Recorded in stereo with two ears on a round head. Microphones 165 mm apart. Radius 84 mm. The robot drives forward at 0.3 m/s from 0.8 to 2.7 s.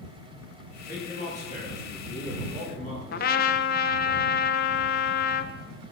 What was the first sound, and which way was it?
A man speaking, 35° left (ahead or behind).